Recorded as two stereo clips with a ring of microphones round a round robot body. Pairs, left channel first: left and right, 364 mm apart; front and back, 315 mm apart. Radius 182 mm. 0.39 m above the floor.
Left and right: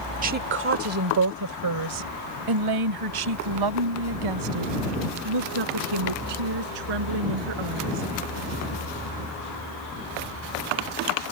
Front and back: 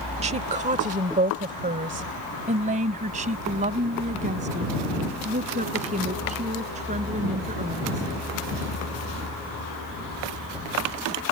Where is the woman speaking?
130° right; by 8.1 s 105° right.